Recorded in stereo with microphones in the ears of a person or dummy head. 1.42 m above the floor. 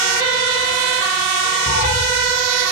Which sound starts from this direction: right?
A cat meowing, at 1.7 s.